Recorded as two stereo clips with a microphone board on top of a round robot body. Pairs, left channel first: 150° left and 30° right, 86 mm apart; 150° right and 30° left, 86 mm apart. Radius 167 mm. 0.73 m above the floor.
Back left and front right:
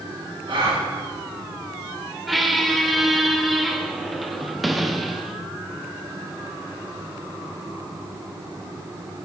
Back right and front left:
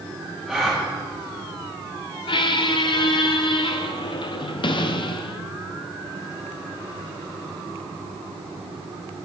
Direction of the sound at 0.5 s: 60° right.